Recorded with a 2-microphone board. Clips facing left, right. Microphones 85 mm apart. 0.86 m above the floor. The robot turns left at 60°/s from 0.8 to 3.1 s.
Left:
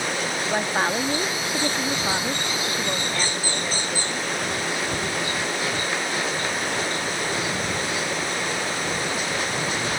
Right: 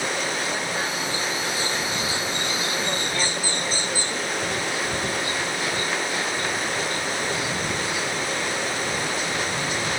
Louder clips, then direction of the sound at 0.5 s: Left 4 dB; 135° left.